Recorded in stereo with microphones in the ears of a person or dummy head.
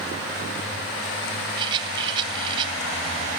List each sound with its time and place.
1.6 s a rattle: 30° right (ahead or behind), 2.5 m